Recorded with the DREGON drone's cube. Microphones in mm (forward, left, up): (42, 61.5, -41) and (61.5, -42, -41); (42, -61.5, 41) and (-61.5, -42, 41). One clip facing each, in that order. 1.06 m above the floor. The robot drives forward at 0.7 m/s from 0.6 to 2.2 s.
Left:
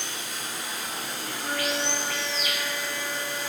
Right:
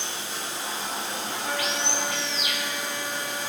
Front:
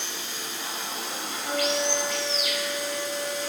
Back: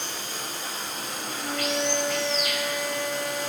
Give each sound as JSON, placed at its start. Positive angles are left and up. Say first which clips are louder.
{"t": 0.0, "sound": "running water", "louder": "right 2 dB, back 2 dB", "azimuth_deg": -140, "distance_m": 4.0}
{"t": 1.4, "sound": "a flute", "louder": "left 2 dB, front 1 dB", "azimuth_deg": -170, "distance_m": 6.0}